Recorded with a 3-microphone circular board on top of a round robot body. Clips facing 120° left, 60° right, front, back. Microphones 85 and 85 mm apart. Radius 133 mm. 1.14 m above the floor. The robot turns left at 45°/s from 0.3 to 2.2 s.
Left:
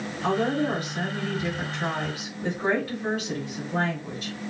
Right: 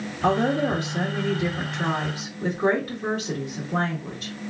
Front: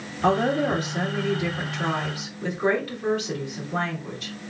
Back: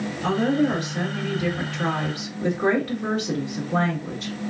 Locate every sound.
0.2 s a woman speaking: 40° right, 1.5 m; by 4.4 s 125° right, 1.5 m